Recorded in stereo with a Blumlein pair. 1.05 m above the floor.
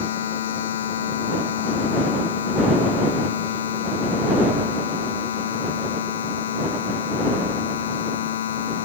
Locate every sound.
0.0 s a machine running: 60° left